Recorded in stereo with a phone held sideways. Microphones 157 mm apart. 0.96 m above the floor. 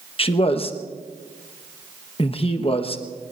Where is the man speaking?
35° left (ahead or behind), 1.2 m.